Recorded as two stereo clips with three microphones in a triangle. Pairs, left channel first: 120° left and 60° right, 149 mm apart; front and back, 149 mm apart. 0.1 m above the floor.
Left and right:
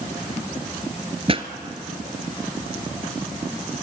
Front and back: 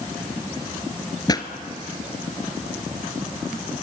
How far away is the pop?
About 1.2 m.